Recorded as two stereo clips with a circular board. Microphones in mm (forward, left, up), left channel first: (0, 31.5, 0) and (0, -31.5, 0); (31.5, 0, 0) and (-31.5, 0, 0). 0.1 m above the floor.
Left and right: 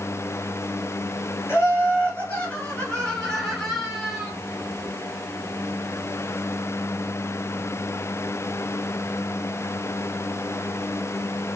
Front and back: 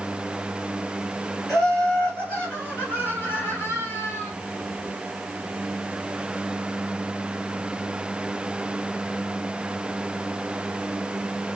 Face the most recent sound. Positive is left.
turn(degrees=-15)